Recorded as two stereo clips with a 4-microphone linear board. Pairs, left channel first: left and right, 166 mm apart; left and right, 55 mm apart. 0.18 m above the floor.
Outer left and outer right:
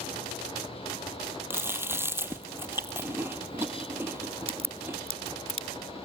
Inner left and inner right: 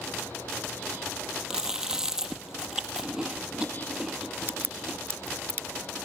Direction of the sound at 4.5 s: 35° right (ahead or behind).